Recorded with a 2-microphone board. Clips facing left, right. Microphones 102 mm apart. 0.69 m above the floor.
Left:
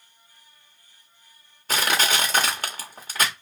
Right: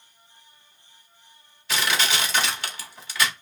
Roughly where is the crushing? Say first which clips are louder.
Left 2 dB; left.